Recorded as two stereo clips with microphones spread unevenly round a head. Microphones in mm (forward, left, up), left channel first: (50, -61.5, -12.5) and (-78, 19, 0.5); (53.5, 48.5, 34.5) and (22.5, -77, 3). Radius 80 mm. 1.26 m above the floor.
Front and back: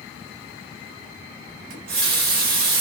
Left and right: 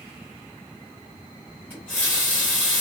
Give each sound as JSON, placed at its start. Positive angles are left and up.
{"t": 1.7, "sound": "a running tap", "azimuth_deg": 150, "distance_m": 1.0}